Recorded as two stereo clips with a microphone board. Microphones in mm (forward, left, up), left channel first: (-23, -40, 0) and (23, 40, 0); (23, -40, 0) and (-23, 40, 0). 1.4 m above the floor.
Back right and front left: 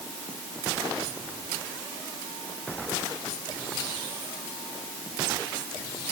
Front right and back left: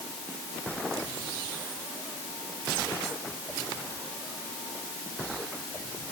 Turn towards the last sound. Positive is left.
No sound to turn to.